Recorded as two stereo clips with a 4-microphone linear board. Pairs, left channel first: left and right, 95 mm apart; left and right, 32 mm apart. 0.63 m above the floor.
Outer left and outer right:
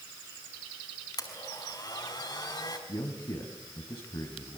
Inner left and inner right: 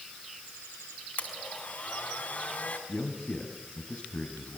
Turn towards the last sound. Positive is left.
turn(degrees=55)  # may be behind; listen again after turning